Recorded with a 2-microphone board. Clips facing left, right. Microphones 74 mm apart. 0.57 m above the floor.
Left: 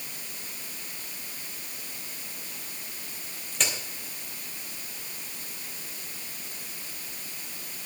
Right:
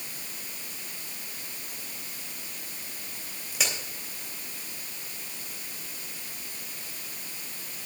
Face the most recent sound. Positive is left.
turn(degrees=-5)  # may be behind; listen again after turning